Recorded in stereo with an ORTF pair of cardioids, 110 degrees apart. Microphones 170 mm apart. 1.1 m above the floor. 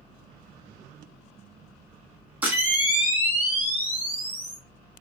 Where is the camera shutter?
10° right, 1.5 m.